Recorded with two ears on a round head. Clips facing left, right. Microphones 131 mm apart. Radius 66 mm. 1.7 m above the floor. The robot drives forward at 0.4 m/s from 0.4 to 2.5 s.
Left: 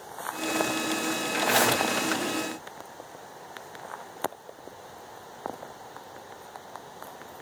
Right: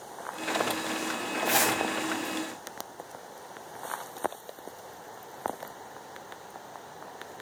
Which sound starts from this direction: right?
A zipper, at 1.4 s.